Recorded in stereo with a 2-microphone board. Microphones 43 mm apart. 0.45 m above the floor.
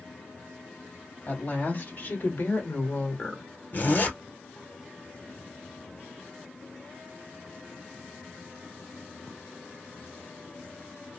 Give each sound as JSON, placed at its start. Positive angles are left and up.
{"t": 1.3, "sound": "a woman speaking", "side_deg": 40, "distance_m": 2.0}
{"t": 3.7, "sound": "a zipper", "side_deg": 40, "distance_m": 1.9}